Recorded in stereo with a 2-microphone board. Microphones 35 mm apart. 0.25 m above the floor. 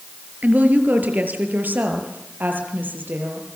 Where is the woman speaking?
50° right (ahead or behind), 5 m; by 3.5 s 65° right (ahead or behind), 8.5 m.